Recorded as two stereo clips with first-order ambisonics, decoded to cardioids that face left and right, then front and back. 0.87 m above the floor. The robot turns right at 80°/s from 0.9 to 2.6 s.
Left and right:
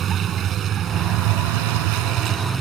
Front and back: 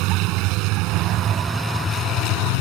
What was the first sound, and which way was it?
A vehicle, 150° right.